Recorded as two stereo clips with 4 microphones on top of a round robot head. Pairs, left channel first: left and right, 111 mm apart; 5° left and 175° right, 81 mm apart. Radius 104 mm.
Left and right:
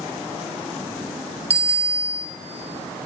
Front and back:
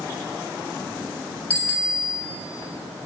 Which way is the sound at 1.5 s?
70° right.